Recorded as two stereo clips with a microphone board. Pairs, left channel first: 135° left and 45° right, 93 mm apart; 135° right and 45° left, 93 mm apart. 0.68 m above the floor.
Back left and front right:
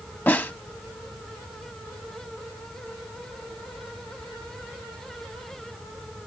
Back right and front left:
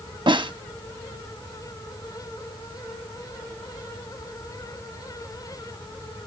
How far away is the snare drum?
About 0.7 m.